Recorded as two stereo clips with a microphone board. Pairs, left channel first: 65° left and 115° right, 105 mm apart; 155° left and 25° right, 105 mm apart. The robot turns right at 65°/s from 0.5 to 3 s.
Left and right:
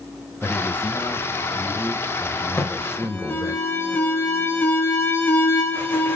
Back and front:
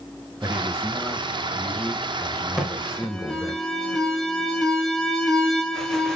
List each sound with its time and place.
0.4 s a man speaking: straight ahead, 1.1 m; by 3.6 s 160° left, 1.1 m
2.6 s an alarm: 55° left, 1.0 m; by 6.2 s 80° left, 1.0 m